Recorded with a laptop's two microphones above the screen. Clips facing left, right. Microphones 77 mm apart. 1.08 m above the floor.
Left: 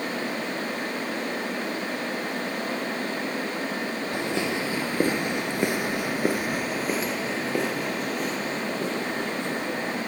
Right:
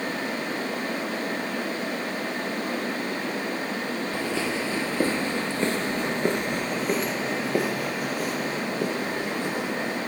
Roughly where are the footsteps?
Centre.